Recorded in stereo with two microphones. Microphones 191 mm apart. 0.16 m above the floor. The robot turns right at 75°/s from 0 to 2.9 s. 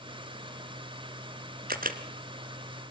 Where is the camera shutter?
50° right (ahead or behind), 1.5 m; by 2.0 s 45° right (ahead or behind), 1.5 m.